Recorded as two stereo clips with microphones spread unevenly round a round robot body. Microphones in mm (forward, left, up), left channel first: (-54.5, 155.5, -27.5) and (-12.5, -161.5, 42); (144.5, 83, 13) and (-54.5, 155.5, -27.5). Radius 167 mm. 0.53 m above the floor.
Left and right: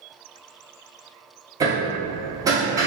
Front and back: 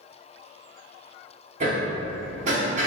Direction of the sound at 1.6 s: 170° right.